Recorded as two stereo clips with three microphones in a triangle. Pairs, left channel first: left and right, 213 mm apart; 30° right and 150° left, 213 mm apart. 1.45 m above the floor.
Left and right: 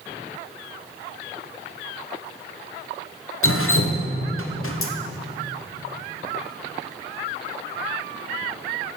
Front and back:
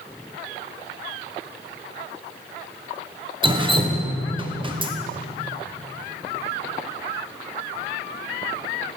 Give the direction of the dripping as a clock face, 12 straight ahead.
9 o'clock.